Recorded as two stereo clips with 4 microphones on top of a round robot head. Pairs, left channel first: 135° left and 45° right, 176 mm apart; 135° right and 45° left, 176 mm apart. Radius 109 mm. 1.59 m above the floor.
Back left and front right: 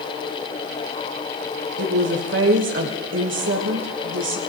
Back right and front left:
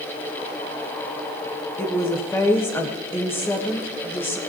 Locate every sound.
1.8 s a woman speaking: 60° right, 1.5 m